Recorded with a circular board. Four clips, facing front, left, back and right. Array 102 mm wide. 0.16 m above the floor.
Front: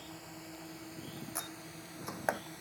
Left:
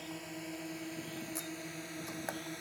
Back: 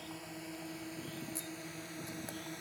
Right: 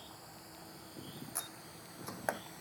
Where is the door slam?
20° right.